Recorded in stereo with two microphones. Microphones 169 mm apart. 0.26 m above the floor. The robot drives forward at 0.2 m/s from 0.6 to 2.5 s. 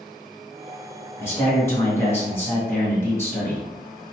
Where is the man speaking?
15° left (ahead or behind), 1.5 m.